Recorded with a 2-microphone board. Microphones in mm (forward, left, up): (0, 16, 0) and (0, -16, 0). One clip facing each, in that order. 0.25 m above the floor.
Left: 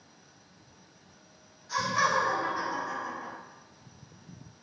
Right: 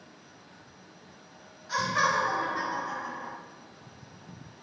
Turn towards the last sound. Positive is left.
turn(degrees=-10)  # may be behind; listen again after turning